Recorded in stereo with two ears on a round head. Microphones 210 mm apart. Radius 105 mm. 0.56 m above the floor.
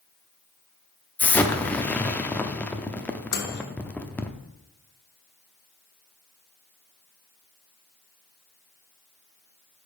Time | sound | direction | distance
1.2 | an explosion | 5° left (ahead or behind) | 0.7 m
3.3 | a microwave | 45° left (ahead or behind) | 1.2 m